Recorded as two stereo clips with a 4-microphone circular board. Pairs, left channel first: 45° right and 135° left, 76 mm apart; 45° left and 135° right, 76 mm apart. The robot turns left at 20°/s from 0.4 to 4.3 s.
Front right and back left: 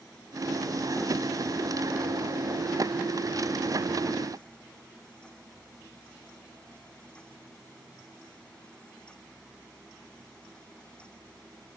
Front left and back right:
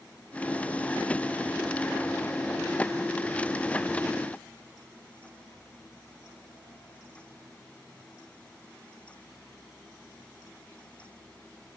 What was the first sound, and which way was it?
Only background noise.